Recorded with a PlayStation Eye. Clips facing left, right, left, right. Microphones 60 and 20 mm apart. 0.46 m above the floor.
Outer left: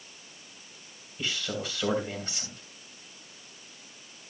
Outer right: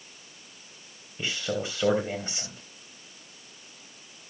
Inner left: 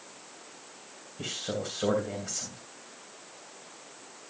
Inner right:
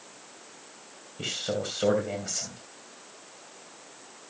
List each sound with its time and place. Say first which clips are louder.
1.2 s a man speaking: outer right 3 dB, inner right 3 dB; 25° right (ahead or behind), 3 m